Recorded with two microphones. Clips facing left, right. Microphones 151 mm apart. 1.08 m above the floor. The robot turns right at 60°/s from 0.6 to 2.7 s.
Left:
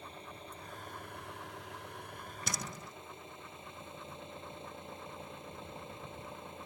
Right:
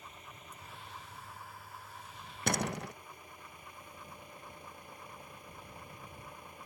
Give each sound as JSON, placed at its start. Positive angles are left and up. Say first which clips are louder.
{"t": 0.0, "sound": "an engine running", "louder": "left 5 dB", "azimuth_deg": 30}
{"t": 2.5, "sound": "a door slam", "louder": "right 11 dB", "side_deg": -60}